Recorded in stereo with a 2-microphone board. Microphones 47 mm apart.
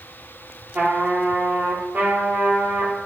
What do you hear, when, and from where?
0.8 s a trumpet: 35° right (ahead or behind), 2.5 m